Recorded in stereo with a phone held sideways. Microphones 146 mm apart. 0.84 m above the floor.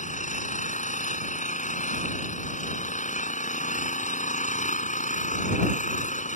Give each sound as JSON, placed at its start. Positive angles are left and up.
{"t": 0.0, "sound": "an engine running", "side_deg": 60}